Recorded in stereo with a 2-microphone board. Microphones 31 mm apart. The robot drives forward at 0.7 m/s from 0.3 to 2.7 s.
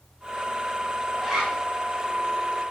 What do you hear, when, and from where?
1.2 s a zipper: 20° right (ahead or behind), 3 m